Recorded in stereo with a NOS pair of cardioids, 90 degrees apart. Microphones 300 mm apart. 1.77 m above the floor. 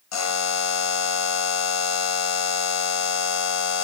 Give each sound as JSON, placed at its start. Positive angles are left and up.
{"t": 0.1, "sound": "a buzzer", "azimuth_deg": 65, "distance_m": 1.5}